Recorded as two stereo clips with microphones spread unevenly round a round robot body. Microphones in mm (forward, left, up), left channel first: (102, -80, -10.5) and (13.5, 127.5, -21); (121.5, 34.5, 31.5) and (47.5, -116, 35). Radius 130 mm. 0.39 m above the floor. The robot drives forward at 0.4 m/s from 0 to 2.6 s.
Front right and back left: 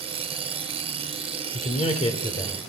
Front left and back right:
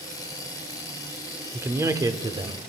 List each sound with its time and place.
1.5 s a man speaking: 50° right, 0.8 m; by 2.6 s 125° right, 0.8 m